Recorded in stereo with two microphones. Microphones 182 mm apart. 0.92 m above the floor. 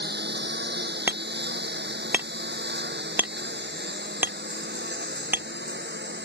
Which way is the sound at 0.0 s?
75° right (ahead or behind).